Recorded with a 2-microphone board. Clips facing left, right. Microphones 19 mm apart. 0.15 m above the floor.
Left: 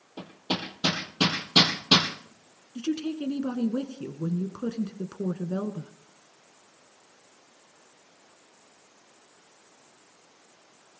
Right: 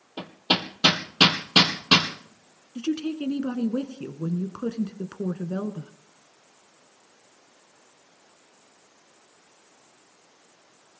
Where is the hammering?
75° right (ahead or behind), 2 m.